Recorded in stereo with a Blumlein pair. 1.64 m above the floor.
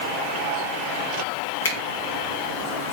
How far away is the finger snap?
About 1.0 m.